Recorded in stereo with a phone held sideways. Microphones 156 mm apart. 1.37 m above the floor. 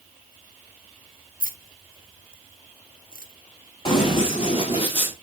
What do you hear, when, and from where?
1.4 s keys jangling: 75° right (ahead or behind), 0.8 m
3.9 s running footsteps: 40° left (ahead or behind), 1.9 m; by 5.1 s 35° left (ahead or behind), 1.6 m